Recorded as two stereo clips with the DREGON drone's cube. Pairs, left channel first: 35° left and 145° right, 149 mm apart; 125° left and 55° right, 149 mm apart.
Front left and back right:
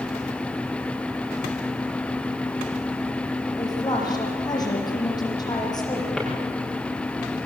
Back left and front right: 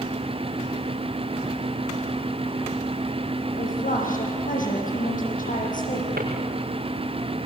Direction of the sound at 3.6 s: 100° left.